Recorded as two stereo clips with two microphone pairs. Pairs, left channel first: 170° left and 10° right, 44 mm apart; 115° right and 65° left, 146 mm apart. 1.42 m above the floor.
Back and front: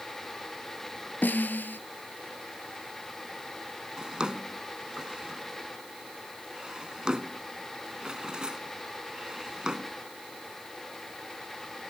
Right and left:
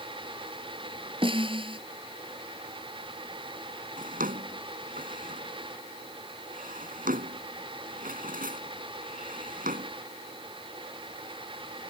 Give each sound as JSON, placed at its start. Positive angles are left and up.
{"t": 1.2, "sound": "a snare drum", "azimuth_deg": 120}
{"t": 4.0, "sound": "a drawer", "azimuth_deg": 60}